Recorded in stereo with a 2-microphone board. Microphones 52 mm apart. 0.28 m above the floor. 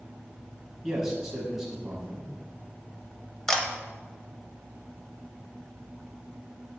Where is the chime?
I don't hear a chime.